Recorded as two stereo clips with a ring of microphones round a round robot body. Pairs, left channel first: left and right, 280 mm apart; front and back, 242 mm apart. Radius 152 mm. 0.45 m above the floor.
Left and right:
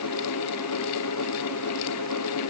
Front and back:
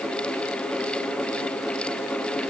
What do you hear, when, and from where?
Only background noise.